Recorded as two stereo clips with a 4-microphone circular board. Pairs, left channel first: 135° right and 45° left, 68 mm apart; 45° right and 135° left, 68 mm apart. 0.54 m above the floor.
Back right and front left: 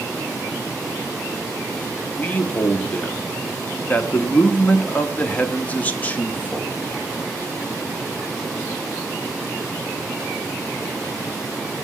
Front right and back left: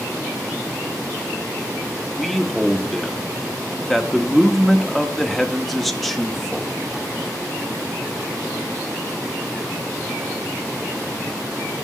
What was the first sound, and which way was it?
A man speaking, 135° right.